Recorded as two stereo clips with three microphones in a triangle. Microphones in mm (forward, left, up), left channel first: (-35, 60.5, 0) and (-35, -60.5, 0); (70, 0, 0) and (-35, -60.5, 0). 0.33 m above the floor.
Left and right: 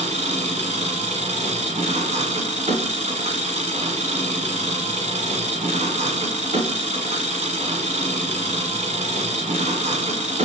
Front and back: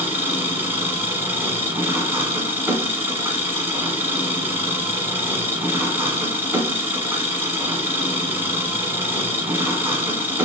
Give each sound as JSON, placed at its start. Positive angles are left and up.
{"t": 0.0, "sound": "an engine running", "azimuth_deg": -80, "distance_m": 1.4}